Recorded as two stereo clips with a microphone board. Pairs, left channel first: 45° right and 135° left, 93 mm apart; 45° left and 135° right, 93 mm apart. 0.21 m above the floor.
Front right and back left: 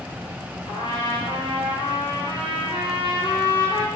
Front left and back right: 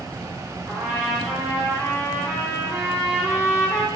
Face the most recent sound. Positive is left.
turn(degrees=-65)